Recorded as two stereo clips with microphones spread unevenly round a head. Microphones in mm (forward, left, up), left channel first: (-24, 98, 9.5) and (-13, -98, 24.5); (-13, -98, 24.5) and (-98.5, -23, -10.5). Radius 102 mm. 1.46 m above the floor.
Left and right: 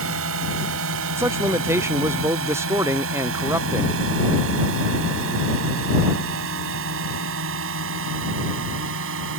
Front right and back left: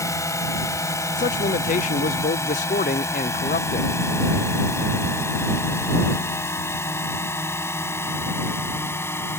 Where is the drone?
105° right; by 9.4 s 110° right.